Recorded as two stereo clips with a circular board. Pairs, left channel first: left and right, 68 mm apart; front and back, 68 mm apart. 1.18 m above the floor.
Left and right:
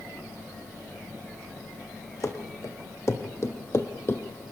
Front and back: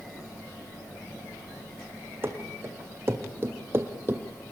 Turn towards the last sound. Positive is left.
turn(degrees=135)